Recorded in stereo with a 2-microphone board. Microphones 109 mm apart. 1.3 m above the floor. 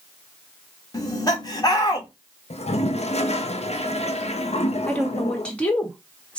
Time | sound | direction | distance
0.9 | laughter | 35° left (ahead or behind) | 1.6 m
2.5 | a toilet flushing | 75° left (ahead or behind) | 0.6 m
4.9 | a woman speaking | 10° left (ahead or behind) | 1.4 m